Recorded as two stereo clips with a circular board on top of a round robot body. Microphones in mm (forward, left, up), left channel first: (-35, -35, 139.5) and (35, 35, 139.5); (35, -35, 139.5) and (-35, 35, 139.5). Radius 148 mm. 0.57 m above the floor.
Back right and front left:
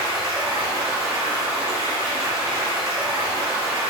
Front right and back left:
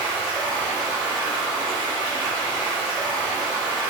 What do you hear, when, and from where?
0.0 s running water: 95° left, 1.4 m